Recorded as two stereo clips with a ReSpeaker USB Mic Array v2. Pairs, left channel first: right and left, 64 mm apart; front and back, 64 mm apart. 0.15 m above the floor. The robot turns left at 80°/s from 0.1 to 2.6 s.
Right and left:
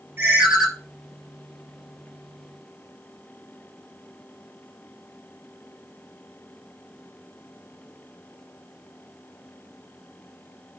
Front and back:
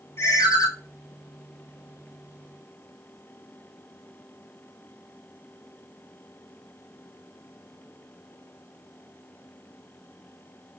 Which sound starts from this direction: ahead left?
A ringtone, at 0.2 s.